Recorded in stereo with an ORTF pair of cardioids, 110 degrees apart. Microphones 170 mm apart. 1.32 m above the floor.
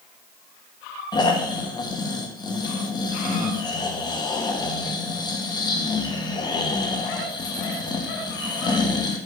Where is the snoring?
25° left, 1.3 m.